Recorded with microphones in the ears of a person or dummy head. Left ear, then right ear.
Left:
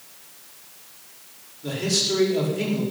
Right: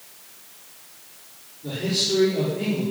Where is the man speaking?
70° left (ahead or behind), 5 m.